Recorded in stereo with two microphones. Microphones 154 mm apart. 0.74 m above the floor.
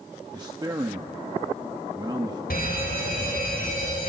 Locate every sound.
0.3 s a man speaking: 25° right (ahead or behind), 0.8 m
2.5 s a fire alarm: 70° left (ahead or behind), 5.5 m